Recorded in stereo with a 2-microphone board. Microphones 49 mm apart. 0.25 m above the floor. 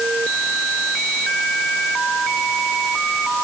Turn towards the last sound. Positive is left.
No sound to turn to.